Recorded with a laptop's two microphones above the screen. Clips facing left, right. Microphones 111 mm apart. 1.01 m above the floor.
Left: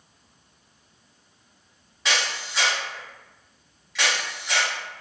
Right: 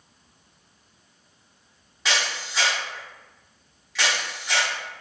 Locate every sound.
2.0 s a camera shutter: centre (ahead or behind), 1.3 m